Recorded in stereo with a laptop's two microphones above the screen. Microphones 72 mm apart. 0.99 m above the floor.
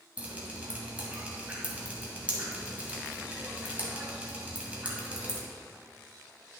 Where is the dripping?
20° right (ahead or behind), 1.9 m.